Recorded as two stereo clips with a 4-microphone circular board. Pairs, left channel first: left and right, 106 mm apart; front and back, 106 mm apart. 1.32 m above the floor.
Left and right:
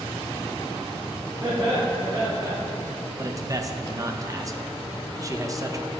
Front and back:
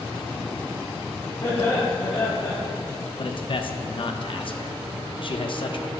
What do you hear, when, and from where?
1.4 s laughter: 35° right, 1.5 m
3.2 s a man speaking: 35° right, 0.6 m